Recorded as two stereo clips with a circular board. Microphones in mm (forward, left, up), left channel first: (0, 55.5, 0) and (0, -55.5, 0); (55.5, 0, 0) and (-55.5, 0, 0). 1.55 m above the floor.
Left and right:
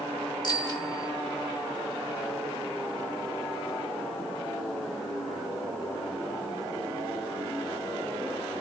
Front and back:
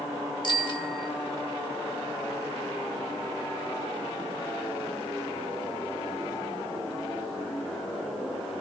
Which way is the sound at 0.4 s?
40° left.